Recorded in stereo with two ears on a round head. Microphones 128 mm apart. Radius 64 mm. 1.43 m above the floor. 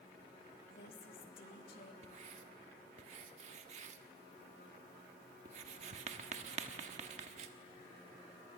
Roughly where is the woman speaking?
Left.